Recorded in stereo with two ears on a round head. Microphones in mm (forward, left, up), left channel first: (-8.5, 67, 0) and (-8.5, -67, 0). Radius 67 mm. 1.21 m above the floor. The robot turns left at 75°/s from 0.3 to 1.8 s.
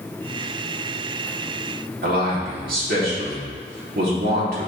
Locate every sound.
2.0 s a man speaking: 70° right (ahead or behind), 3 m